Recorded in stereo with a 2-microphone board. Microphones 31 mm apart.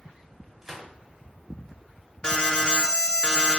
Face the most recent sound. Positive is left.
turn(degrees=30)  # may be behind; listen again after turning